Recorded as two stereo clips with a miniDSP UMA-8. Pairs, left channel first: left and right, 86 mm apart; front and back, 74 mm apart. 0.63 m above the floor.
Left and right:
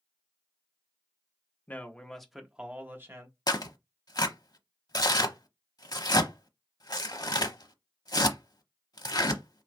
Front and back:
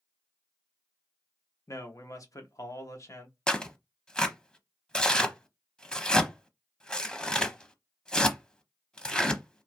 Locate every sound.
1.7 s a man speaking: 25° left, 1.0 m; by 3.4 s 45° right, 1.1 m
3.5 s tearing paper: 75° left, 0.7 m